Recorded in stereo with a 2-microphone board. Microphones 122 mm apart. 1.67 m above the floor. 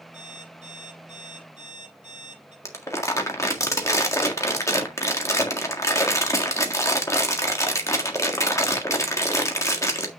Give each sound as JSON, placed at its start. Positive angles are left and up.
{"t": 0.1, "sound": "an alarm clock", "side_deg": -70, "distance_m": 4.0}
{"t": 2.6, "sound": "crumpling", "side_deg": 25, "distance_m": 1.7}